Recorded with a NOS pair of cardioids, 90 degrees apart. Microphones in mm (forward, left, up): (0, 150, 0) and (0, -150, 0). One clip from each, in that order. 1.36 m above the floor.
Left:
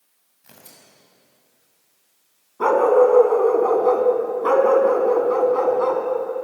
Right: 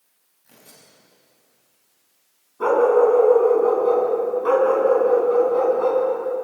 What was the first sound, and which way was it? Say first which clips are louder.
Tearing paper: left 2 dB; 65° left.